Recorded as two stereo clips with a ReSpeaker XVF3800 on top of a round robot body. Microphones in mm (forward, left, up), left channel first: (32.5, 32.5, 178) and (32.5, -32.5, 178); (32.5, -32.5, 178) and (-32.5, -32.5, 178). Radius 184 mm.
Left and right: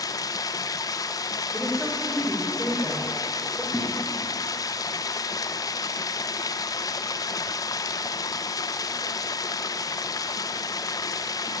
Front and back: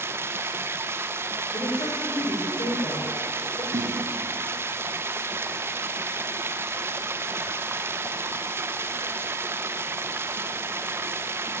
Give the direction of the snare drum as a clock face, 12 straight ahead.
6 o'clock.